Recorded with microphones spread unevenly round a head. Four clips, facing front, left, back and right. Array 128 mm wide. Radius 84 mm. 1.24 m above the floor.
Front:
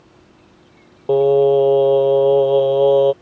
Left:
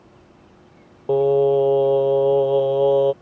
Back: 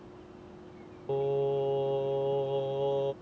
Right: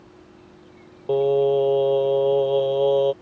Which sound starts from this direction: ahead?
Singing, at 1.1 s.